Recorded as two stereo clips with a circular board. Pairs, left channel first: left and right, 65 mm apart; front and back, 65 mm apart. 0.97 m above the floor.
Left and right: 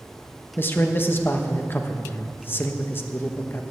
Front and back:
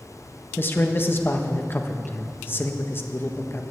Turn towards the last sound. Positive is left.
turn(degrees=45)